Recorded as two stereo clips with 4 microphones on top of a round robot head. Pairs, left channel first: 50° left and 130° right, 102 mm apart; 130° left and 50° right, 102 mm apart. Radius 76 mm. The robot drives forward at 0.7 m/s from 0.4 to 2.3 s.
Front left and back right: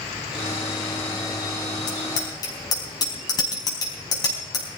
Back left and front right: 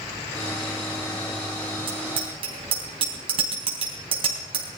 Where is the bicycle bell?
10° right, 4 m.